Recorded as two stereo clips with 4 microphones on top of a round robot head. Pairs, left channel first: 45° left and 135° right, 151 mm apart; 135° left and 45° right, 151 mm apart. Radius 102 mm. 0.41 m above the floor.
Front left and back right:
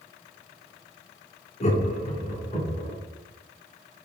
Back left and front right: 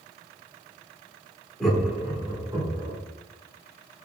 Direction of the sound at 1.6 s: 55° left.